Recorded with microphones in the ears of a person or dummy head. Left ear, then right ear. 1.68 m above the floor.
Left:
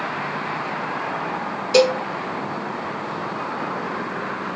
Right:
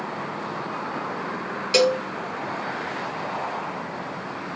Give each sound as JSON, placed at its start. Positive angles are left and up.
{"t": 1.7, "sound": "a cowbell", "side_deg": -20, "distance_m": 1.1}